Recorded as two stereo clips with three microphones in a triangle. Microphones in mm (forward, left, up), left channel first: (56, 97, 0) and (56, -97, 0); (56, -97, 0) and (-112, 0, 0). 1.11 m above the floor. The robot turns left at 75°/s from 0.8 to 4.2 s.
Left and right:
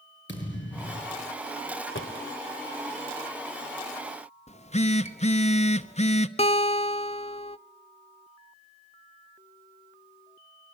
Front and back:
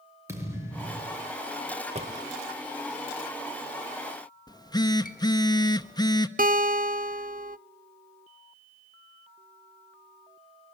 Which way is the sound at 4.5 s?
35° left.